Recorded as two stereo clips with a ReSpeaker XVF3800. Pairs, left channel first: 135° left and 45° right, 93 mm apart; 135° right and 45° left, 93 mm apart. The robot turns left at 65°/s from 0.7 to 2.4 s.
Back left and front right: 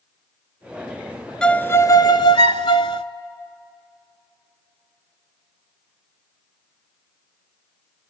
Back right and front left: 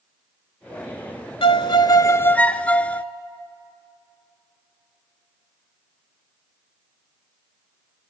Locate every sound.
1.4 s a violin: 145° right, 0.6 m; by 3.0 s 150° left, 0.6 m